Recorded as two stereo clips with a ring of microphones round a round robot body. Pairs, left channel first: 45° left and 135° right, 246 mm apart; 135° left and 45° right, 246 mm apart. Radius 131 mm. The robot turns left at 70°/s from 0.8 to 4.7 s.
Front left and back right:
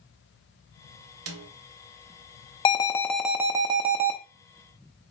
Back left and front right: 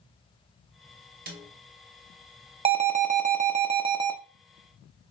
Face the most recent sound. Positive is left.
turn(degrees=-150)